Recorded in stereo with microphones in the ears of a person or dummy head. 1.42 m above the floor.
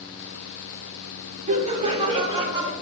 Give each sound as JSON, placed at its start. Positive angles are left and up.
{"t": 1.5, "sound": "laughter", "side_deg": -45, "distance_m": 1.4}